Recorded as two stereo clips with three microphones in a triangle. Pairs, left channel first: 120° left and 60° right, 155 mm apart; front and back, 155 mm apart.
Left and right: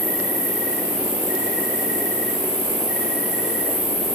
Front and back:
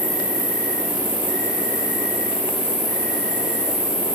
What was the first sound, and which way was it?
An insect, 155° left.